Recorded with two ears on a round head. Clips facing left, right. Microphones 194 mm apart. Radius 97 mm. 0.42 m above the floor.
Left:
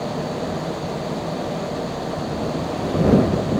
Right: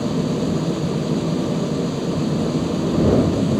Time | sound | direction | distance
0.0 | an engine running | 35° right (ahead or behind) | ?